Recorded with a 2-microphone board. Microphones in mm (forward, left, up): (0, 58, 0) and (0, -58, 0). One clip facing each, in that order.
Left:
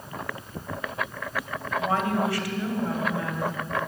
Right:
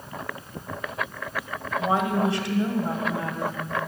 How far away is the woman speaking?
About 1.6 m.